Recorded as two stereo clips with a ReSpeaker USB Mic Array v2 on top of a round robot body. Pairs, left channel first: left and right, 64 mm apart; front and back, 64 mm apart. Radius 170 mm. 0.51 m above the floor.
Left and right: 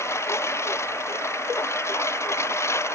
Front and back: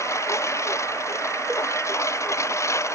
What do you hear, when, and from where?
0.0 s a lawn mower: 40° left